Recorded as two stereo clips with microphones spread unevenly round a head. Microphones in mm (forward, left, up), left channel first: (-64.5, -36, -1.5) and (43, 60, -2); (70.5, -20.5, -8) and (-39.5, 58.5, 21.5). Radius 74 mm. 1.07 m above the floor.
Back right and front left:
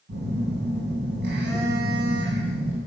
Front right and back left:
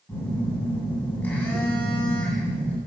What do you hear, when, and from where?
0.1 s a phone buzzing: 45° left, 7.5 m